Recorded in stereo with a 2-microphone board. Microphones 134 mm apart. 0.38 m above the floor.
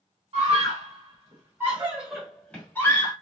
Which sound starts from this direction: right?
A scream, at 0.3 s.